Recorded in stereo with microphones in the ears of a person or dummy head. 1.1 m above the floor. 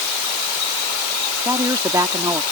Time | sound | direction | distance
1.4 | a woman speaking | 15° right (ahead or behind) | ?